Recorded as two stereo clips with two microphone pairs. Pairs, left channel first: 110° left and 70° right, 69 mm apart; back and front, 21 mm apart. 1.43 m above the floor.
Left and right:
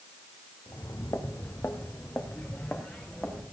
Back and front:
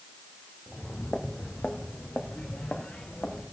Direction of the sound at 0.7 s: 125° left.